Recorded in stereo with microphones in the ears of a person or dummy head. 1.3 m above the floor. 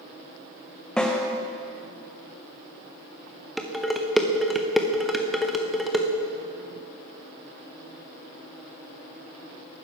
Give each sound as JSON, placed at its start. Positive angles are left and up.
{"t": 1.0, "sound": "a snare drum", "side_deg": 0, "distance_m": 0.7}
{"t": 3.6, "sound": "dishes clattering", "side_deg": 0, "distance_m": 0.6}